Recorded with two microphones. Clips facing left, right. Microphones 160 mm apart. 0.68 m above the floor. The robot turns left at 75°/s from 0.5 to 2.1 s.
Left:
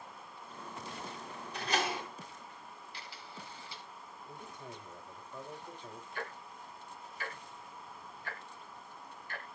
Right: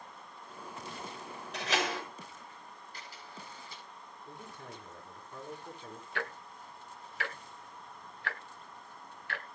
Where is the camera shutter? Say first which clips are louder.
Right 1 dB; 45° right (ahead or behind), 6.5 m.